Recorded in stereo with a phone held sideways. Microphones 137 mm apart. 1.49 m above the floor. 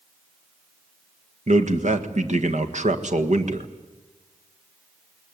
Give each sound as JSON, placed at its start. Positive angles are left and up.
{"t": 1.5, "sound": "a man speaking", "side_deg": -60, "distance_m": 1.6}